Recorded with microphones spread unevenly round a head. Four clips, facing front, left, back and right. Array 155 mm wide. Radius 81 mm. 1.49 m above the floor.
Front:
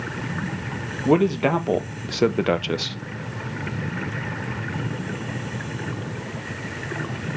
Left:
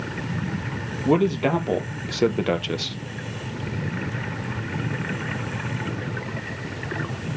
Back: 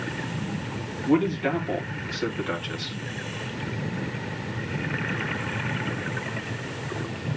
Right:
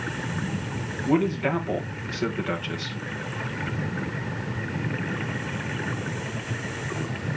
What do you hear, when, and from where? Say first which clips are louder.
1.1 s a man speaking: left 3 dB, front 4 dB; 40° left, 2 m; by 3.0 s 30° left, 0.8 m